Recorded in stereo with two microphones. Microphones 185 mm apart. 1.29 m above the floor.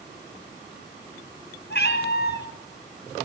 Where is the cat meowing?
70° left (ahead or behind), 3 m.